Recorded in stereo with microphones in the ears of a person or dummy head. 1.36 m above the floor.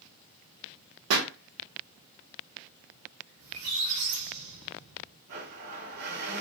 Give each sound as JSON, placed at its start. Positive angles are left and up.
{"t": 1.1, "sound": "a pop", "side_deg": -75, "distance_m": 1.1}
{"t": 3.4, "sound": "a squeak", "side_deg": -75, "distance_m": 2.0}
{"t": 5.3, "sound": "a blender", "side_deg": -65, "distance_m": 2.5}